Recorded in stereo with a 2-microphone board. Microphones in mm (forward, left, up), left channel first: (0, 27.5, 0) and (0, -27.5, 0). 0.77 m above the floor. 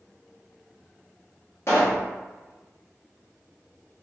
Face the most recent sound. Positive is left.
turn(degrees=55)  # may be behind; listen again after turning